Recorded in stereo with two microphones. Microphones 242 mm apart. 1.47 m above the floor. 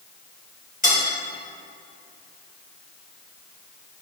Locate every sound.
0.8 s cutlery clinking: 35° left (ahead or behind), 3.5 m